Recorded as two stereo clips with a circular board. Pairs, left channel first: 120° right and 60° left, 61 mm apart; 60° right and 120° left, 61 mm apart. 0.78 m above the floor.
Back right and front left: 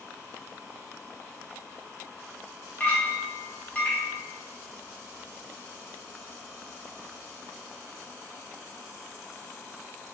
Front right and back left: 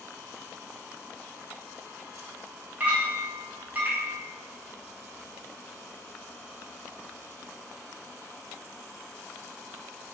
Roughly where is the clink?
Behind.